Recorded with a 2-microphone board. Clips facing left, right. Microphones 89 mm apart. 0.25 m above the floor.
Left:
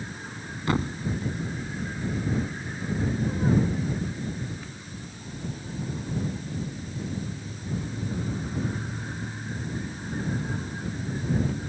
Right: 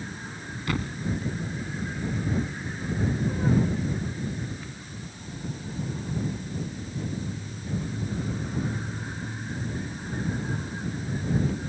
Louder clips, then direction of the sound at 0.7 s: Left 4 dB; 25° left (ahead or behind).